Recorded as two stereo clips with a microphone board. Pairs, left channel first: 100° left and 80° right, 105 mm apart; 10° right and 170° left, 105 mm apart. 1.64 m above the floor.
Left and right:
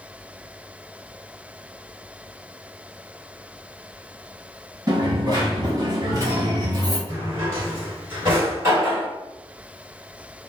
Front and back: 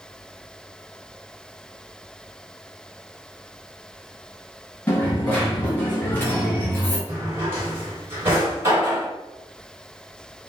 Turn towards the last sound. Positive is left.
turn(degrees=-130)